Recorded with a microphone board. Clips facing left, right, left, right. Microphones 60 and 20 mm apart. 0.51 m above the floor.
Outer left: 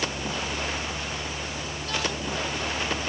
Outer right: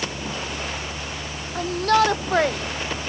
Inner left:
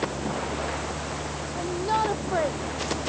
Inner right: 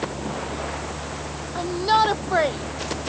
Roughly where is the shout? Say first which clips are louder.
Outer right 17 dB, inner right 7 dB; right.